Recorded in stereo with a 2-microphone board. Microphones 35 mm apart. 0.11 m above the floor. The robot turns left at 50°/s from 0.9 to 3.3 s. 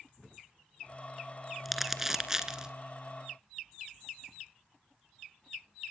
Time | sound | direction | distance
1.6 | crumpling | 5° right (ahead or behind) | 1.3 m